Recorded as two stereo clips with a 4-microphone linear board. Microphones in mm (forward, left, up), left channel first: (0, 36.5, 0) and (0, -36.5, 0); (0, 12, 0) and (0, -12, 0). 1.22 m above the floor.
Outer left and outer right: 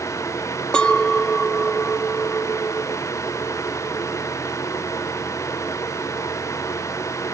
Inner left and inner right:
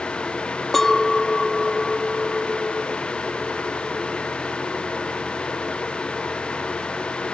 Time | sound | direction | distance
0.7 | a clink | 15° left (ahead or behind) | ?